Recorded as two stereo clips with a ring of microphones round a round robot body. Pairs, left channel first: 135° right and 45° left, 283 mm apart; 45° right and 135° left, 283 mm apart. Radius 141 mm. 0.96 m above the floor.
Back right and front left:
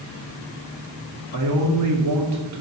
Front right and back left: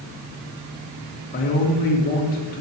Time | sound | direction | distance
1.3 | a man speaking | 15° left | 2 m